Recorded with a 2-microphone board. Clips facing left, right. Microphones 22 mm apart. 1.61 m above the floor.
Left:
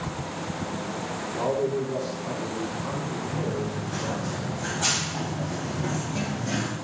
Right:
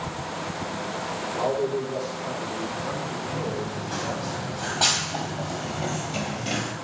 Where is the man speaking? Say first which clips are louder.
Even; 25° right (ahead or behind), 5 m; by 4.3 s 15° right (ahead or behind), 3.5 m.